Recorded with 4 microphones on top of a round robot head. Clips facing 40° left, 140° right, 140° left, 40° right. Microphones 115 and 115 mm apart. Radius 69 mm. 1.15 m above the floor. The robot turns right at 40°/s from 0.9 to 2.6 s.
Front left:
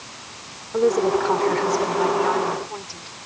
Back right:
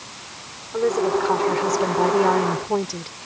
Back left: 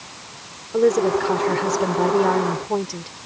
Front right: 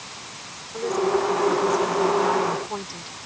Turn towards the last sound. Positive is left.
turn(degrees=-175)